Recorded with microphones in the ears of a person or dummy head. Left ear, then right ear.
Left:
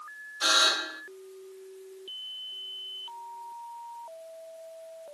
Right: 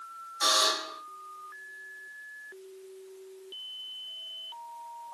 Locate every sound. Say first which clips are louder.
0.4 s a buzzer: left 2 dB; 60° right (ahead or behind), 2.0 m